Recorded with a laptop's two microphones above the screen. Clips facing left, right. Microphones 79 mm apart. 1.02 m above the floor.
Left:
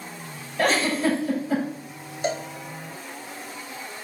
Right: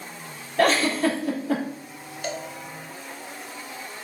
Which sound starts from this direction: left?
A cowbell, at 2.2 s.